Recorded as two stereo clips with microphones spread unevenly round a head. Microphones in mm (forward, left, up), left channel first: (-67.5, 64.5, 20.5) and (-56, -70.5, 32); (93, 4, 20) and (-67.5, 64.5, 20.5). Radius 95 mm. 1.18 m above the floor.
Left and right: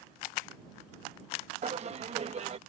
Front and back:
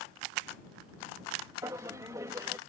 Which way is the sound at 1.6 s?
125° right.